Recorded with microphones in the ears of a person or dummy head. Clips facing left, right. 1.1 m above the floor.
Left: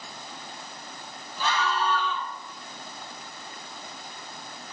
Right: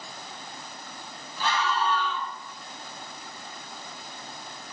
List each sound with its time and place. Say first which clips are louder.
1.4 s a scream: even; 75° left (ahead or behind), 3.5 m